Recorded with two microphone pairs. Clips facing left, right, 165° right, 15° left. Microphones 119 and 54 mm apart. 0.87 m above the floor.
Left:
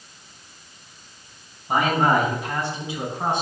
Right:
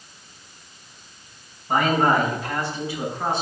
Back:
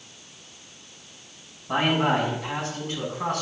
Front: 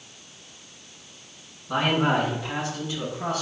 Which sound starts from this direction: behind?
A man speaking, at 1.7 s.